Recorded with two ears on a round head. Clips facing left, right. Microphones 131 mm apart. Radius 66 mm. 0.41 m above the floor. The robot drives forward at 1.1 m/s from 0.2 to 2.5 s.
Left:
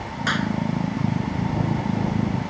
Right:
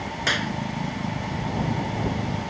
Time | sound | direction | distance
0.3 | a clap | 20° right (ahead or behind) | ?